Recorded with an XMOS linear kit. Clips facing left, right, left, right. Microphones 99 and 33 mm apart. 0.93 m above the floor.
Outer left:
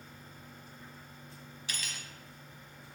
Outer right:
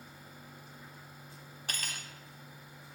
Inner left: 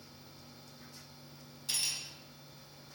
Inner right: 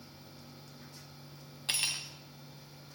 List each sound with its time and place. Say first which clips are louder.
1.7 s cutlery clinking: outer right 2 dB, inner right 4 dB; 50° right (ahead or behind), 0.7 m